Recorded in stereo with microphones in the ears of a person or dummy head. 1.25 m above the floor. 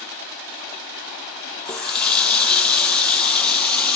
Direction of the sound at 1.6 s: 10° left (ahead or behind).